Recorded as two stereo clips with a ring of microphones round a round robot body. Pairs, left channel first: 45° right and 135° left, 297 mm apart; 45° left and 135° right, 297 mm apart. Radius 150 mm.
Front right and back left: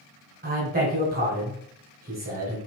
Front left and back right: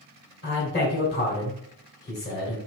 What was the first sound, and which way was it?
A man speaking, 85° left.